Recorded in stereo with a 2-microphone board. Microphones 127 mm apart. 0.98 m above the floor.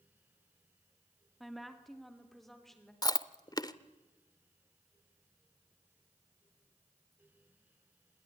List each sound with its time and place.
1.4 s a woman speaking: centre (ahead or behind), 2.5 m; by 2.9 s 5° left (ahead or behind), 4 m
3.0 s chewing: 30° left (ahead or behind), 0.7 m